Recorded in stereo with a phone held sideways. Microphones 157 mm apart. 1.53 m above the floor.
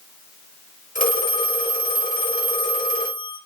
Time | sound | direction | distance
0.9 | a phone ringing | 60° left (ahead or behind) | 1.6 m